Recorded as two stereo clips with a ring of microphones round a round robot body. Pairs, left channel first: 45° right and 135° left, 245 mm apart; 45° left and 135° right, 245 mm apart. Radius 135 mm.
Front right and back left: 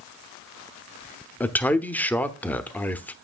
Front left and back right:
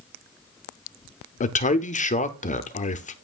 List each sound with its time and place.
1.4 s a man speaking: 30° left, 0.8 m